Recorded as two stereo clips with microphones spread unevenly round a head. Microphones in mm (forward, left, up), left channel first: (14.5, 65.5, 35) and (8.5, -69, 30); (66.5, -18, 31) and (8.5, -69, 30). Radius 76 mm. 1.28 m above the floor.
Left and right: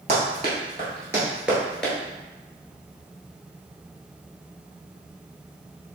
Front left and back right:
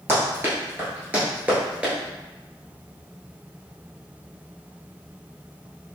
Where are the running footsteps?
105° right, 1.5 m; by 1.9 s 155° left, 1.3 m.